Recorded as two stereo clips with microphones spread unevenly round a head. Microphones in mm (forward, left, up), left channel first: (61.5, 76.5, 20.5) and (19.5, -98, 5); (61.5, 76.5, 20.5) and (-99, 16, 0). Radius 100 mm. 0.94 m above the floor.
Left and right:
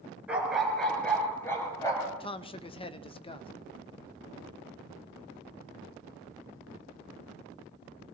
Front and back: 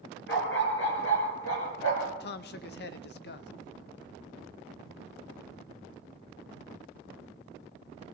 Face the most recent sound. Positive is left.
turn(degrees=15)